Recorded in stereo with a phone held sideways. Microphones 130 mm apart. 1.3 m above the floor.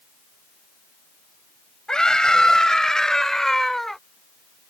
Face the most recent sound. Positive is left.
turn(degrees=0)  # may be behind; listen again after turning